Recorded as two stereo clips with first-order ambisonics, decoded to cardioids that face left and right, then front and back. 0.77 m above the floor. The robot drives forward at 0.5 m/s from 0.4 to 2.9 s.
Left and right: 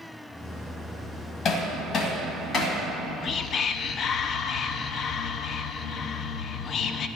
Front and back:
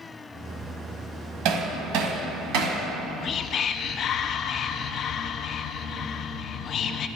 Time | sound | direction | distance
1.4 | hammering | 150° left | 1.8 m
2.9 | whispering | 40° left | 0.6 m